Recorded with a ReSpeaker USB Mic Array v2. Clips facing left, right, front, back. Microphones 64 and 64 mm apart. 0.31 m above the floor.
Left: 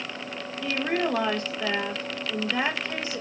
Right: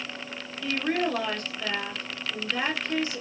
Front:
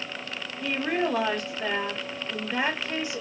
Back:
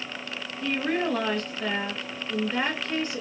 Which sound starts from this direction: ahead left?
A woman speaking, at 0.6 s.